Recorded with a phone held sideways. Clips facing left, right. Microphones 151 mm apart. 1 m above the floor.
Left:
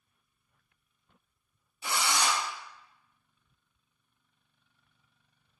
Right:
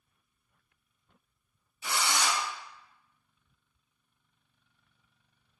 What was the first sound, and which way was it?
A drill, 30° left (ahead or behind).